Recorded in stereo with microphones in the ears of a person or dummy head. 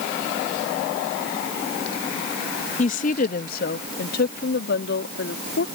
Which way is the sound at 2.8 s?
35° left (ahead or behind).